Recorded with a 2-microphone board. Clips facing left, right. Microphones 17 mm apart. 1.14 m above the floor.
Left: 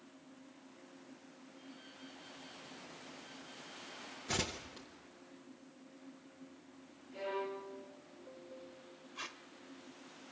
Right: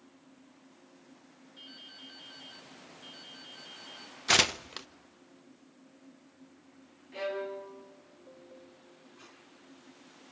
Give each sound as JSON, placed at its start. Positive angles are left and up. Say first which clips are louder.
{"t": 1.6, "sound": "dripping", "louder": "right 7 dB", "side_deg": -65, "distance_m": 7.5}
{"t": 4.3, "sound": "tearing paper", "louder": "right 13 dB", "side_deg": -50, "distance_m": 0.7}
{"t": 7.1, "sound": "a violin", "louder": "right 4 dB", "side_deg": -40, "distance_m": 8.0}
{"t": 9.2, "sound": "tape being pulled", "louder": "left 11 dB", "side_deg": 65, "distance_m": 1.6}